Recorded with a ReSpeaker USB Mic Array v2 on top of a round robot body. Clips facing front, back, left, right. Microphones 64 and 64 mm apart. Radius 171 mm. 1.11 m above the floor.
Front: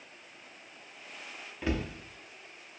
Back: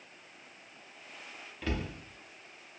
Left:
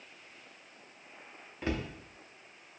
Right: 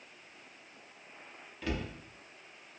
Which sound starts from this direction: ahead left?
A cupboard door, at 1.6 s.